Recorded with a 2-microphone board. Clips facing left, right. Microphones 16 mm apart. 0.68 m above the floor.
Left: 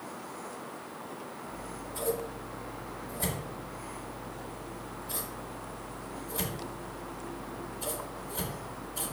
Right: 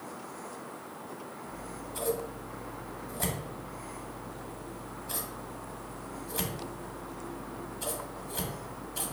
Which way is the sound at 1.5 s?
50° right (ahead or behind).